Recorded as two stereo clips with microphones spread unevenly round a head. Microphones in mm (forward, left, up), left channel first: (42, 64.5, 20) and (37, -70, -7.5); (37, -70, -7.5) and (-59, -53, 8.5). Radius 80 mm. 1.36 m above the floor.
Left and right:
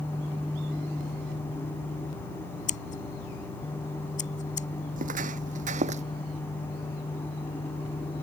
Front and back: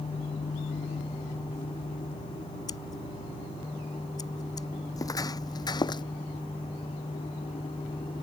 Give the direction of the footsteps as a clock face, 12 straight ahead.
2 o'clock.